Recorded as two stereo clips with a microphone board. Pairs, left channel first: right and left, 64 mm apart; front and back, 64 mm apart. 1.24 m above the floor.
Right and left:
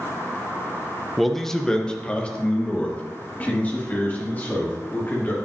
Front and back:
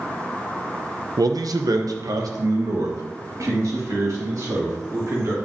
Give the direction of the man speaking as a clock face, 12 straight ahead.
6 o'clock.